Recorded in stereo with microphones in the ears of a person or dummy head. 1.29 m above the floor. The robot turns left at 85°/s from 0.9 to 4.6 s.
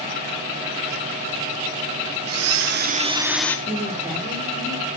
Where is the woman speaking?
135° right, 3 m; by 4.9 s 145° left, 3 m.